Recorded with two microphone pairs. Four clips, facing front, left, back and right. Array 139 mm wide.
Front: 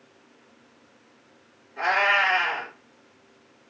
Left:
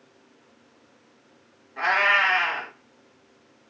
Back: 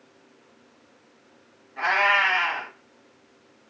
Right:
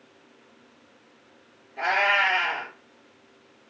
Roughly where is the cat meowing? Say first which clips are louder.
Left 1 dB, even; left.